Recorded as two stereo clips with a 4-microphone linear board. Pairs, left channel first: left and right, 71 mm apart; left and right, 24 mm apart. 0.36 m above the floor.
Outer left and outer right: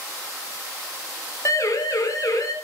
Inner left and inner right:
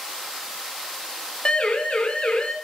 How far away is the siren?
About 4 m.